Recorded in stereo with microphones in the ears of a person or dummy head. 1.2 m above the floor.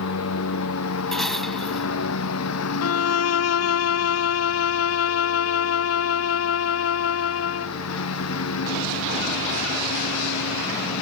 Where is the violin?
70° left (ahead or behind).